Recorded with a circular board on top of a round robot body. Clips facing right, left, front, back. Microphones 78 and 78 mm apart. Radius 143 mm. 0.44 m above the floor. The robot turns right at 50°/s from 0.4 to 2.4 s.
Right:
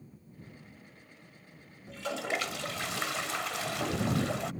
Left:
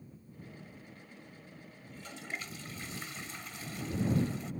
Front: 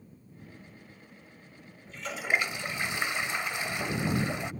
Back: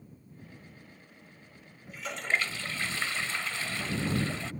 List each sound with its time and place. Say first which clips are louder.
1.9 s a toilet flushing: right 10 dB, front 1 dB; 100° right; by 4.5 s 75° right